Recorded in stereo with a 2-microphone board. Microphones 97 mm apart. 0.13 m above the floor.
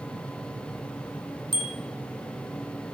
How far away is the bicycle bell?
About 2.5 m.